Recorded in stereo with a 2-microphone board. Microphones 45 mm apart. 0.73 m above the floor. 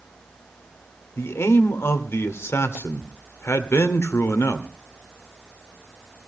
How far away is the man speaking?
About 1.8 m.